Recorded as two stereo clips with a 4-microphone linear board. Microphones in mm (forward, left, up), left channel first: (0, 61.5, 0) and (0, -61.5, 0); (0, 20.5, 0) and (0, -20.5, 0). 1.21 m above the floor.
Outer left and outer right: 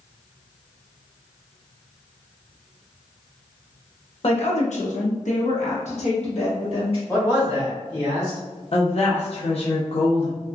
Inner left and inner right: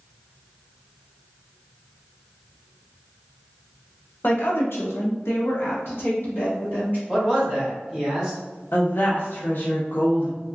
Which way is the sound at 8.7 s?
55° left (ahead or behind).